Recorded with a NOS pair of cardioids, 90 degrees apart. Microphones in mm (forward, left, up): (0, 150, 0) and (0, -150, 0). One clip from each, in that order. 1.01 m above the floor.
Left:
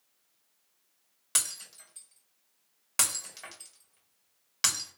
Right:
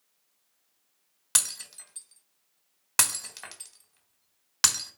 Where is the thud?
I don't hear a thud.